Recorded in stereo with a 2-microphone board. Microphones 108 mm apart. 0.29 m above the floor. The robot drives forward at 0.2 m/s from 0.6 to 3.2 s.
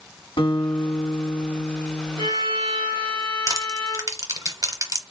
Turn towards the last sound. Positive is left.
turn(degrees=-30)  # may be behind; listen again after turning